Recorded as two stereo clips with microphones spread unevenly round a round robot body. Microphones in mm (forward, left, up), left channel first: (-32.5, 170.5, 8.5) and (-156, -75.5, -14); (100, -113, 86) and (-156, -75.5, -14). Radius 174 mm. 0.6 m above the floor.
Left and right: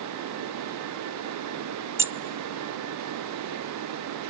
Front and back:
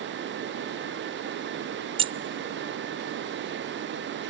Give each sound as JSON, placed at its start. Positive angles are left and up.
{"t": 2.0, "sound": "keys jangling", "azimuth_deg": 175, "distance_m": 0.5}